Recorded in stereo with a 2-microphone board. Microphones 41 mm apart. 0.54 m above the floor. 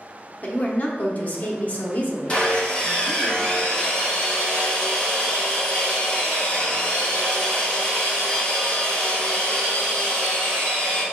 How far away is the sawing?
About 1.5 m.